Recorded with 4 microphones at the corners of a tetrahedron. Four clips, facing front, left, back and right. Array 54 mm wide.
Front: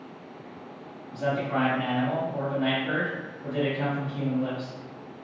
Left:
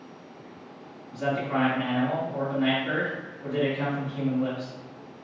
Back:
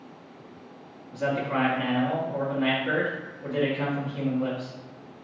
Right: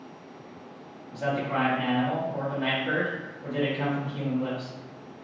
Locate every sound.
1.1 s a man speaking: straight behind, 1.5 m